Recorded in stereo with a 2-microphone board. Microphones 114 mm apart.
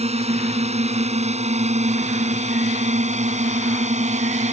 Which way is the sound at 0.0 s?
65° right (ahead or behind).